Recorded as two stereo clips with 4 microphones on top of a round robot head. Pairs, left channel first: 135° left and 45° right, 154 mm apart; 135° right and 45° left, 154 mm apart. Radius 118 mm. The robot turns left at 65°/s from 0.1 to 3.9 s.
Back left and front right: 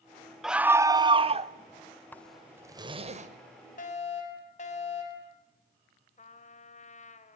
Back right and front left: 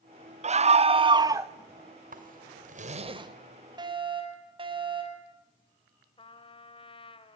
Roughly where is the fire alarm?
Left.